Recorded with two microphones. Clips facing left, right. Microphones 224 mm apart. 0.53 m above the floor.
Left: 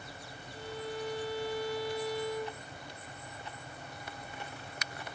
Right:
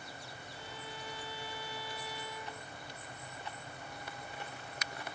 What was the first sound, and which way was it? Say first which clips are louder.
A violin: left 12 dB; 70° left (ahead or behind).